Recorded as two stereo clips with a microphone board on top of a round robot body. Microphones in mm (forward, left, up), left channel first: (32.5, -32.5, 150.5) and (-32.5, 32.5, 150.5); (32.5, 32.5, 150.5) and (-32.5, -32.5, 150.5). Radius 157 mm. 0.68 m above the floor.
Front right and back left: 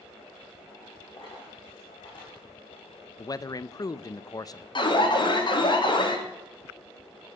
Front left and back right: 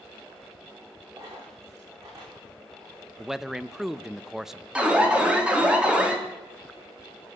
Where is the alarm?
60° right, 3 m.